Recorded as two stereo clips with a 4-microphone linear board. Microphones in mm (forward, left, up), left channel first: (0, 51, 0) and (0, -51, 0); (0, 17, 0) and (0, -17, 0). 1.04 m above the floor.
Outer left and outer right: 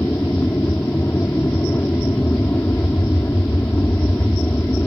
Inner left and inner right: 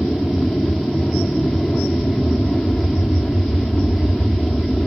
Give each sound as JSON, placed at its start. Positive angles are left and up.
{"t": 0.0, "sound": "an aircraft", "side_deg": 20}